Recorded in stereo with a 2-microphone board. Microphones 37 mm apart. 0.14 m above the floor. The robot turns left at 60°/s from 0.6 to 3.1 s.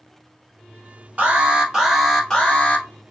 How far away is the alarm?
About 1.6 m.